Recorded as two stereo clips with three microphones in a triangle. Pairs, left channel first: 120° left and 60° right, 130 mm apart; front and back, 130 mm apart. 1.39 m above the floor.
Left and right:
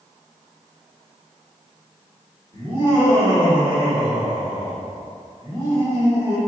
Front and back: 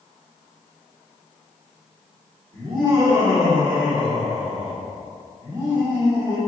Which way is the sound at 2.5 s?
120° right.